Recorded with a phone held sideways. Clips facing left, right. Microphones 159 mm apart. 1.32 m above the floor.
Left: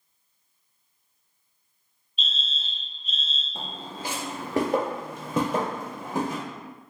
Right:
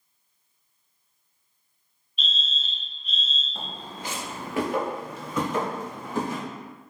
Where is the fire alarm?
40° left (ahead or behind), 1.4 m.